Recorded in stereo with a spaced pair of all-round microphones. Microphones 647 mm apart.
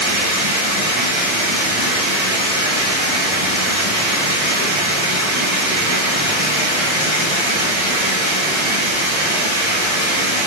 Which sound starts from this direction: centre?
Running water, at 0.0 s.